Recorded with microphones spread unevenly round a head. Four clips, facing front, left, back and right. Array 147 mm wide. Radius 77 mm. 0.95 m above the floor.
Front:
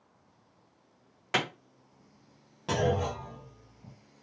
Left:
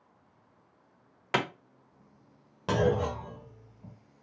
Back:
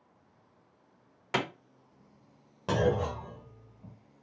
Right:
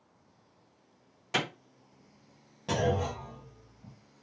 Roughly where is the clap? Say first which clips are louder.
Left 3 dB, even; ahead left.